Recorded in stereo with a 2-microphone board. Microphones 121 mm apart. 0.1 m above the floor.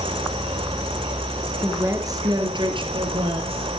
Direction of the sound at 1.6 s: 20° right (ahead or behind).